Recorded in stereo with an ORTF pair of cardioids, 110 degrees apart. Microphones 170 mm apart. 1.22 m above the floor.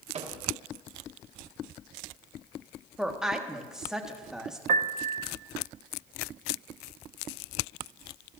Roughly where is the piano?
Ahead right.